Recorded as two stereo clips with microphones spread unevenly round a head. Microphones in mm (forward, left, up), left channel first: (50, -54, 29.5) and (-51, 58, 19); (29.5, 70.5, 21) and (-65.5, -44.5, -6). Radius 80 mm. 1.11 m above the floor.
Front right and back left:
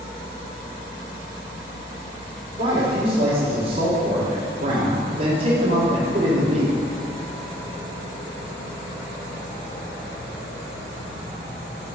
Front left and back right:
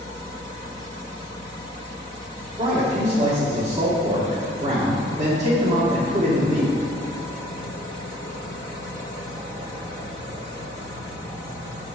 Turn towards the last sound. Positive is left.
turn(degrees=170)